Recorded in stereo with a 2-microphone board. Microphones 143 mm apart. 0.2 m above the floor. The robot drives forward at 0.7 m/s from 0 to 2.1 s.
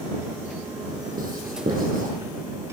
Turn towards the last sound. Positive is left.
turn(degrees=-75)  # may be behind; listen again after turning